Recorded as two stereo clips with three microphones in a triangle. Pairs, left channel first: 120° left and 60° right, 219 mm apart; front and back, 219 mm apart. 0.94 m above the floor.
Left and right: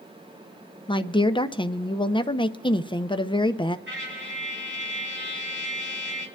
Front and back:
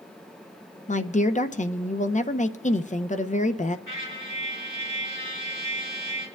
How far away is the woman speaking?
About 0.6 m.